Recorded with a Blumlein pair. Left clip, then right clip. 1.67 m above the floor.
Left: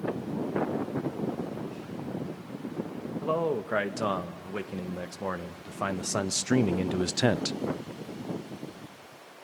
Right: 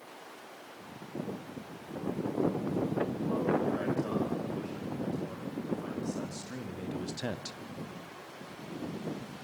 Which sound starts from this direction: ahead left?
A man speaking, at 3.2 s.